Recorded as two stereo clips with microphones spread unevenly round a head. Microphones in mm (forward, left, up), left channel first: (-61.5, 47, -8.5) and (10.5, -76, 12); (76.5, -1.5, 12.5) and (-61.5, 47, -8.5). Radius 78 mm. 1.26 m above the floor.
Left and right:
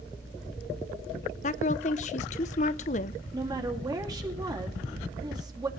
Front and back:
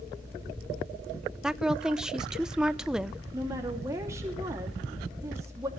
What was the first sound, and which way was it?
A woman speaking, 80° left.